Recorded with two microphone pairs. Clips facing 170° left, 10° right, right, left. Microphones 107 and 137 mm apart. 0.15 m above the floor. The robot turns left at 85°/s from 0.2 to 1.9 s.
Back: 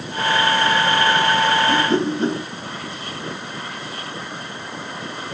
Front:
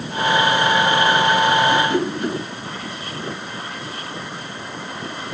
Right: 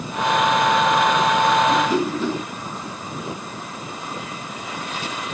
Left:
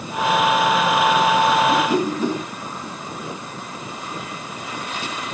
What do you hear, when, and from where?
1.7 s a whoosh: 170° left, 2.0 m; by 2.4 s 155° left, 2.0 m